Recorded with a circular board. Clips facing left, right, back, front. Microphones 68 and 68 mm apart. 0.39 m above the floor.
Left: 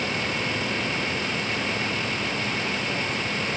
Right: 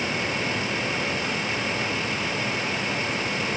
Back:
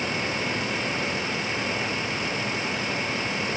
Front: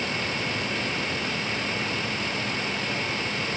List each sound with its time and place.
Only background noise.